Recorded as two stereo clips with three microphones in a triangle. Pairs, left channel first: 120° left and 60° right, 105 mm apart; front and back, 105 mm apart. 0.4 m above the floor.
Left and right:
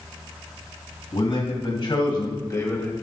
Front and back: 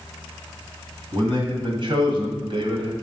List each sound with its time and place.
1.1 s a man speaking: 140° left, 3 m; by 2.9 s 170° right, 1.7 m